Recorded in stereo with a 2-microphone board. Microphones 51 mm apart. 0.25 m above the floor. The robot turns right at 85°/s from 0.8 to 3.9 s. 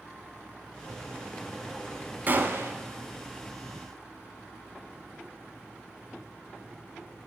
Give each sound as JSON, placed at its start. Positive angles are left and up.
{"t": 2.3, "sound": "a gunshot", "azimuth_deg": -135, "distance_m": 0.6}